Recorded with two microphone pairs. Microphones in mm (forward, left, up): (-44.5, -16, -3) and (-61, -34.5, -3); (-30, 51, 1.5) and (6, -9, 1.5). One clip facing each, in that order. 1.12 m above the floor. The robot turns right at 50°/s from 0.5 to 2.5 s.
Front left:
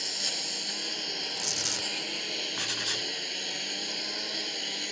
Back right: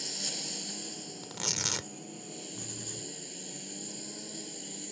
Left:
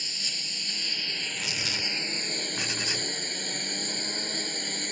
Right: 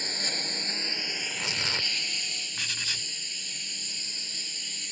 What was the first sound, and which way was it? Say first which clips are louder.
A lawn mower: front left 5 dB, right 5 dB; 15° right.